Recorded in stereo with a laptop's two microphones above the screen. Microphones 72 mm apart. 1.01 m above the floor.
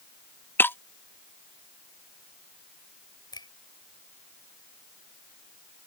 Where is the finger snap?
80° left.